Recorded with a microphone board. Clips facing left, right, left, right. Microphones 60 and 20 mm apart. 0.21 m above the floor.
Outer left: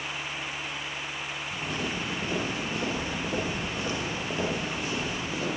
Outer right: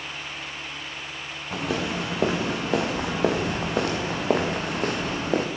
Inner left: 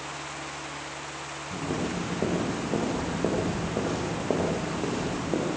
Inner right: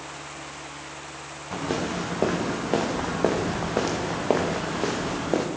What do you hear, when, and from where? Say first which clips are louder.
1.5 s footsteps: outer right 7 dB, inner right 3 dB; 85° right, 6.5 m; by 5.5 s 55° right (ahead or behind), 5.5 m